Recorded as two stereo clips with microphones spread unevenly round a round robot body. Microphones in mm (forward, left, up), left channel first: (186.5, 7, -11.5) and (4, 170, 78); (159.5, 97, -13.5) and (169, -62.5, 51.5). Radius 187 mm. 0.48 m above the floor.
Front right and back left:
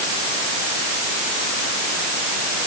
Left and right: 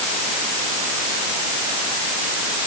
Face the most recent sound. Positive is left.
No sound to turn to.